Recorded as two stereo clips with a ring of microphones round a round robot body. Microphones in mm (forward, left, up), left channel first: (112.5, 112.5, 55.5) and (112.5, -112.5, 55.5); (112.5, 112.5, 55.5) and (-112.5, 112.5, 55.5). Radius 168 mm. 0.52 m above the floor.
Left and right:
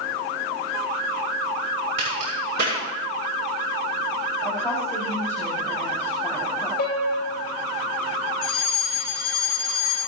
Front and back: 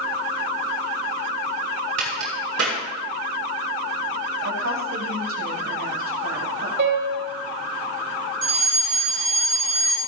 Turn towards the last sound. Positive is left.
turn(degrees=160)